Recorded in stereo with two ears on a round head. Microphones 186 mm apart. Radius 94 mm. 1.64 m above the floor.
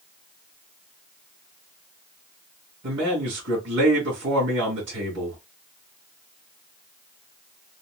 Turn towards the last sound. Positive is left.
turn(degrees=-55)  # may be behind; listen again after turning